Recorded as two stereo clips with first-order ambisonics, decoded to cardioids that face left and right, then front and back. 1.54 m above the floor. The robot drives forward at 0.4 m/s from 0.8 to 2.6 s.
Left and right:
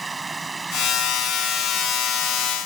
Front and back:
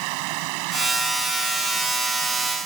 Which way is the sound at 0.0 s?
165° right.